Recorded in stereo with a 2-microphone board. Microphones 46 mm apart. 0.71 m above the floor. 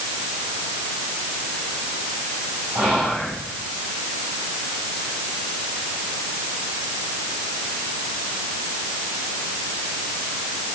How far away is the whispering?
About 4.5 m.